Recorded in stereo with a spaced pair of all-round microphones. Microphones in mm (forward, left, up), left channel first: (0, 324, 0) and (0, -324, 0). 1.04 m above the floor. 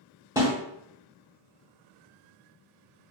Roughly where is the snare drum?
Centre.